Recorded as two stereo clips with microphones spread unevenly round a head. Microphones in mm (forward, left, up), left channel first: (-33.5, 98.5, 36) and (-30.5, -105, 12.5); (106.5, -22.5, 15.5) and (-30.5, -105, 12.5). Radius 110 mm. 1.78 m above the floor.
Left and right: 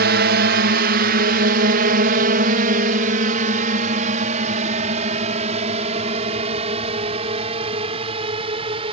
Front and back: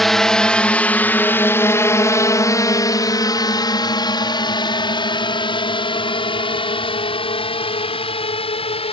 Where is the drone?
60° right; by 8.9 s 20° right.